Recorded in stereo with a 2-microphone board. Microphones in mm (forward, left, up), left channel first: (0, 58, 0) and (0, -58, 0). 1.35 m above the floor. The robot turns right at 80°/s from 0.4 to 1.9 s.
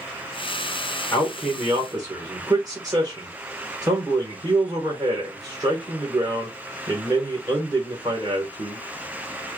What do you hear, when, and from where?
1.1 s a man speaking: 155° left, 1.4 m; by 8.8 s 145° right, 1.4 m